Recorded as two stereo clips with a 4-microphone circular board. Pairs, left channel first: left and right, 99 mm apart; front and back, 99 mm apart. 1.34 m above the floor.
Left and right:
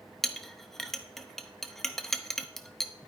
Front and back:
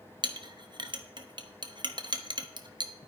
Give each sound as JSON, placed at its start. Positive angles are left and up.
{"t": 0.2, "sound": "a clink", "azimuth_deg": 175, "distance_m": 0.8}